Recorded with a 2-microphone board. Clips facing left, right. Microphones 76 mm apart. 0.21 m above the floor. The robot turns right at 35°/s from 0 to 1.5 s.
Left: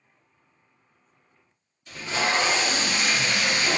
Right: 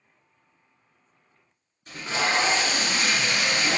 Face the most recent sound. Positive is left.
turn(degrees=-45)  # may be behind; listen again after turning